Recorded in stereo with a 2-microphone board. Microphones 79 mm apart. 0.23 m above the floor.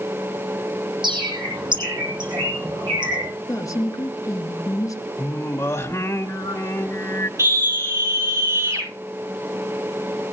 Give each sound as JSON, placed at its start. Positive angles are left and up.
{"t": 1.0, "sound": "a bird", "side_deg": -75, "distance_m": 8.5}
{"t": 3.5, "sound": "a woman speaking", "side_deg": 45, "distance_m": 3.5}
{"t": 5.2, "sound": "singing", "side_deg": 35, "distance_m": 1.9}
{"t": 7.4, "sound": "a scream", "side_deg": -40, "distance_m": 10.0}